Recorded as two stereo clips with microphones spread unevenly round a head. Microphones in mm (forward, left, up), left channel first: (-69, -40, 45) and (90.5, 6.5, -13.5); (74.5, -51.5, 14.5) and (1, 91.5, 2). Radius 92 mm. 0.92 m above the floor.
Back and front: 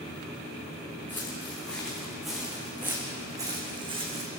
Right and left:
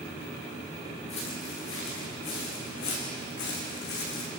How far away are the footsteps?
About 6.5 m.